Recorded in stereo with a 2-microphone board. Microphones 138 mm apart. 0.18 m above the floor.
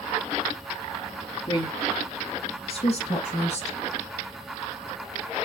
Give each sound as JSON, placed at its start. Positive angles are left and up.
{"t": 1.5, "sound": "a woman speaking", "side_deg": 35, "distance_m": 1.4}